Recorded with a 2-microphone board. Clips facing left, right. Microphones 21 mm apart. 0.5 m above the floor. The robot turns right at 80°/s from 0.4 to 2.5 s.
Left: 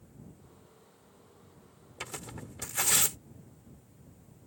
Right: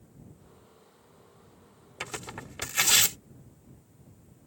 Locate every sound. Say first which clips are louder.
2.0 s tearing paper: right 4 dB; 15° right (ahead or behind); by 3.2 s 50° right (ahead or behind)